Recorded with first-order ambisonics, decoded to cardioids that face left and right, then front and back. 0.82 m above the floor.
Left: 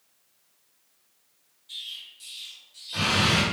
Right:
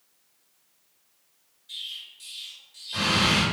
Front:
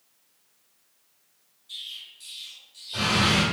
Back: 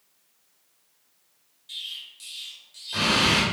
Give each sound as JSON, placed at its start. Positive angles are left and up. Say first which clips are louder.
{"t": 1.7, "sound": "an explosion", "louder": "right 1 dB, back 2 dB", "azimuth_deg": -175, "distance_m": 1.2}